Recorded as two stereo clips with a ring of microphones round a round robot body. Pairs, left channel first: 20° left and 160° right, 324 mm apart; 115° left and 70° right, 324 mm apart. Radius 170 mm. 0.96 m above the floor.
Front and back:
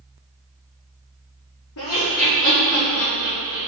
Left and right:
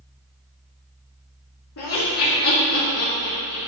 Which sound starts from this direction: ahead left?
Laughter, at 1.8 s.